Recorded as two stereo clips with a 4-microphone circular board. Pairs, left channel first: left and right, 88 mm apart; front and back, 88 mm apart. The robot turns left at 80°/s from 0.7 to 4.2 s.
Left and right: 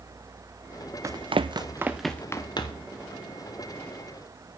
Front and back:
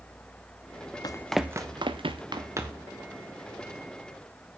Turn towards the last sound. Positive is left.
turn(degrees=-10)